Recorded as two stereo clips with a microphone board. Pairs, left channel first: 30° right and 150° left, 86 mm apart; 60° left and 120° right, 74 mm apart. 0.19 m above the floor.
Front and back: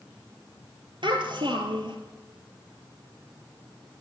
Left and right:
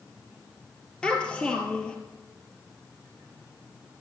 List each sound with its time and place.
1.0 s a child speaking: 135° left, 3 m